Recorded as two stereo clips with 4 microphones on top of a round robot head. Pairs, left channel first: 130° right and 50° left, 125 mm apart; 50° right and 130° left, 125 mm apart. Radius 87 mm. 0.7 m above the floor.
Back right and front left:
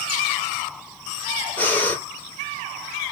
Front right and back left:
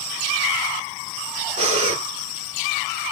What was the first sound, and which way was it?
Breathing, 155° left.